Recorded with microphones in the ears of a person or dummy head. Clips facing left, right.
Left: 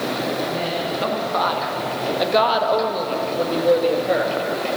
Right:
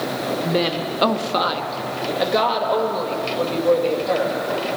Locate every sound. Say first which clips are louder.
0.4 s a woman speaking: right 3 dB; 60° right (ahead or behind), 0.7 m; by 4.8 s 20° left (ahead or behind), 2.5 m